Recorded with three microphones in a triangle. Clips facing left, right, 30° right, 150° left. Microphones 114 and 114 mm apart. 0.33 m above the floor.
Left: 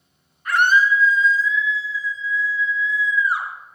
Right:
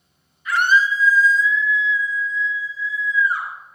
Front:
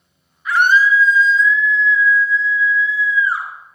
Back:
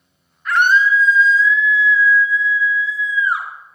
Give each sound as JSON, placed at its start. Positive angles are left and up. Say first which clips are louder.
{"t": 0.5, "sound": "a scream", "louder": "left 1 dB, front 1 dB", "azimuth_deg": 55, "distance_m": 4.0}